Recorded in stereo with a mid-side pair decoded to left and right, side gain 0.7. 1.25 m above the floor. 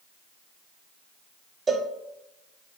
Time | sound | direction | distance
1.7 | a cowbell | 25° right | 0.5 m